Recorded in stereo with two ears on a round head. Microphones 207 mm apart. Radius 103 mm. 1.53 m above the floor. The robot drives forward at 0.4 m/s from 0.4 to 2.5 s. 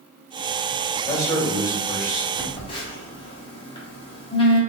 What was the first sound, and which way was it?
A man speaking, 15° left (ahead or behind).